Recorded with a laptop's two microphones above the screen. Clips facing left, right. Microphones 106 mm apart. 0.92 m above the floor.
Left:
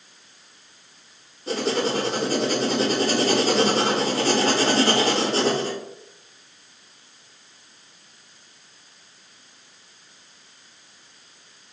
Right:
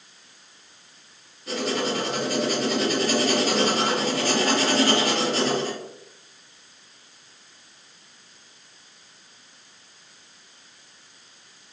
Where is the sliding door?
No sliding door in this recording.